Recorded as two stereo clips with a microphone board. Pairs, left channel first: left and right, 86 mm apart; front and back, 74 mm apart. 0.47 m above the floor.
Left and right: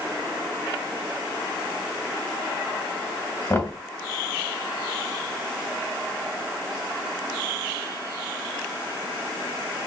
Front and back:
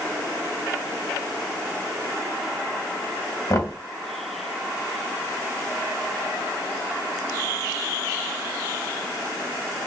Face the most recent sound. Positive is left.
turn(degrees=35)